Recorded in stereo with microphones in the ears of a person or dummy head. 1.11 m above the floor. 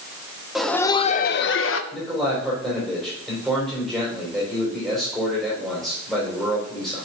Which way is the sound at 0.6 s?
Centre (ahead or behind).